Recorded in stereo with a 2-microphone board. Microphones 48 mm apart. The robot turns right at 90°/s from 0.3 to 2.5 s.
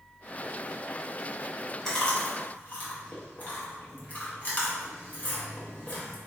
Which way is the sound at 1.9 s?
10° left (ahead or behind).